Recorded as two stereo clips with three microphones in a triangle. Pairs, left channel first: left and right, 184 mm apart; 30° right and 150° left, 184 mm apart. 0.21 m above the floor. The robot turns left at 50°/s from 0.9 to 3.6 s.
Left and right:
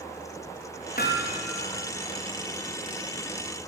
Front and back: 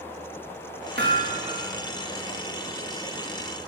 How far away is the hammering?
About 5.5 m.